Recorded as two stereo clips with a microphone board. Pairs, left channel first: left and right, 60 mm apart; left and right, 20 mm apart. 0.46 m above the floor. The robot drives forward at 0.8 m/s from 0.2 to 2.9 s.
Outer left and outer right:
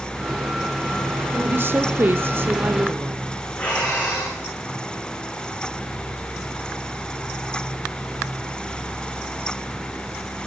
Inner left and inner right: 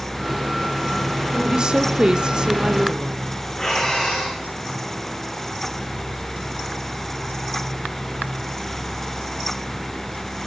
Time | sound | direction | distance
1.3 | a woman speaking | 35° right (ahead or behind) | 1.2 m
3.6 | breathing | 25° left (ahead or behind) | 5 m